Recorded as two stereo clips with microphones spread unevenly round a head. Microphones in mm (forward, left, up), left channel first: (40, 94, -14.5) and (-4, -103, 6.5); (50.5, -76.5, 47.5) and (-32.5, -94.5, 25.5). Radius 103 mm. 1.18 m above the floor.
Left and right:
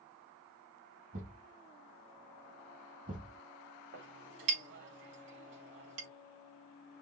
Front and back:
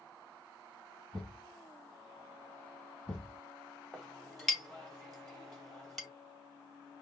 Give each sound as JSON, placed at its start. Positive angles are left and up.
{"t": 1.1, "sound": "a thud", "azimuth_deg": -60, "distance_m": 2.0}
{"t": 3.9, "sound": "a clink", "azimuth_deg": -75, "distance_m": 2.5}